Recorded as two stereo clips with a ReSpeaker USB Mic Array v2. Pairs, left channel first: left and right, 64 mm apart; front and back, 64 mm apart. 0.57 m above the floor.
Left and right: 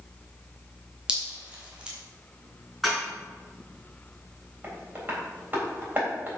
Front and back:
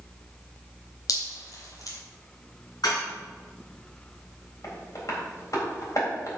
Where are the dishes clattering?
Straight ahead, 4.5 m.